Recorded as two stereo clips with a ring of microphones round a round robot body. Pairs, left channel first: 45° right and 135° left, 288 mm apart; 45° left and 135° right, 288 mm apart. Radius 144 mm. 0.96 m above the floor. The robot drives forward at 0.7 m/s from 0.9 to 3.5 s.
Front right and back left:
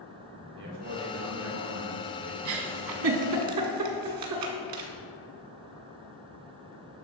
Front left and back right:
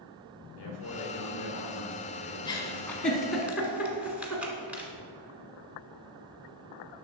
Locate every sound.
0.6 s a man speaking: 85° left, 3 m; by 3.5 s 115° left, 3.5 m
2.5 s a giggle: 120° left, 1.5 m; by 4.9 s 140° left, 1.9 m